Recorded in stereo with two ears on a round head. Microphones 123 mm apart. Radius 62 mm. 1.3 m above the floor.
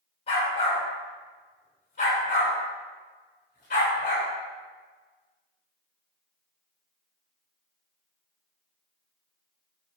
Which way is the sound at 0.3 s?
45° left (ahead or behind).